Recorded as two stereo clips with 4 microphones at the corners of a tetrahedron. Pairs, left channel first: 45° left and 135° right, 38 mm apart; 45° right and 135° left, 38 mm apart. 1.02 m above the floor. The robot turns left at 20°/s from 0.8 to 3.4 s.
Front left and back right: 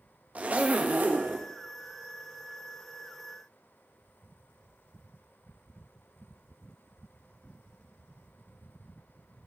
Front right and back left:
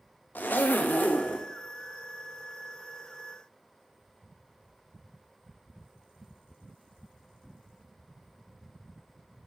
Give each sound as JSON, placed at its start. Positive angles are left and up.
{"t": 0.3, "sound": "a zipper", "azimuth_deg": -85, "distance_m": 0.5}